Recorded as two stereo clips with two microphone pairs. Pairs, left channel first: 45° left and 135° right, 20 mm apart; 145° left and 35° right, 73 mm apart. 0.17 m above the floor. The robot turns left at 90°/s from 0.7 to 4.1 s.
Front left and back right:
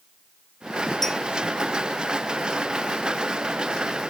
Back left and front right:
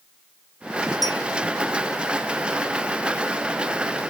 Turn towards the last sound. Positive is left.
turn(degrees=60)